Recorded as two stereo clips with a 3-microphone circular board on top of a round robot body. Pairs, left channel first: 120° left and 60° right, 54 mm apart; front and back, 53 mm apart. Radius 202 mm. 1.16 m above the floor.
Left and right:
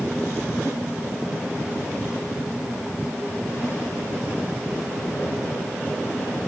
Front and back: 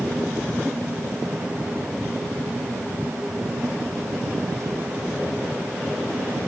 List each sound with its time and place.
Only background noise.